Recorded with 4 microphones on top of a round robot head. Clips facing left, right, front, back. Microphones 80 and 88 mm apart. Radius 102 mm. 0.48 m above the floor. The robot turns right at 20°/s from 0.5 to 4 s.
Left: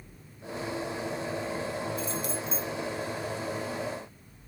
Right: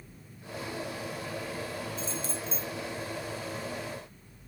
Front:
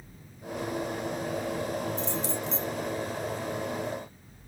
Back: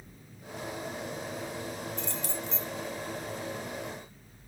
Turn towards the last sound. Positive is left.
turn(degrees=-115)